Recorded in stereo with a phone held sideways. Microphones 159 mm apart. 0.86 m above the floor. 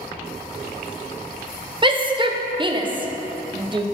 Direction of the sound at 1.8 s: 30° right (ahead or behind).